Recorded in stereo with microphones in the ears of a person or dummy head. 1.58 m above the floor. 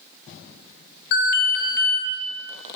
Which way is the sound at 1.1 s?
50° left (ahead or behind).